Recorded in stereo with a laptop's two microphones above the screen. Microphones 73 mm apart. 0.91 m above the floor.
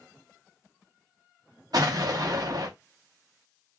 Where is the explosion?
60° right (ahead or behind), 0.7 m.